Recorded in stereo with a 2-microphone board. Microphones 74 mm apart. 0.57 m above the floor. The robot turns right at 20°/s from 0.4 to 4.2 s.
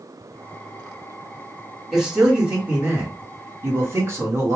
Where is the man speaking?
170° right, 1.5 m; by 4.6 s 125° right, 1.5 m.